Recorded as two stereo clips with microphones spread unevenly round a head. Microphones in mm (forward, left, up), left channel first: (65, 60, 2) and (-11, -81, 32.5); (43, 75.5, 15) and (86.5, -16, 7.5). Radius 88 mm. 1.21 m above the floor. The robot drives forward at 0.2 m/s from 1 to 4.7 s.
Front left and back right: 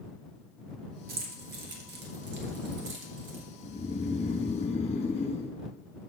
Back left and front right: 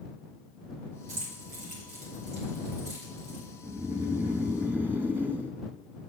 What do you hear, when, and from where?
1.1 s keys jangling: 90° right, 1.0 m; by 3.4 s 115° right, 1.1 m
3.6 s snoring: 5° left, 0.9 m; by 5.5 s 10° left, 0.7 m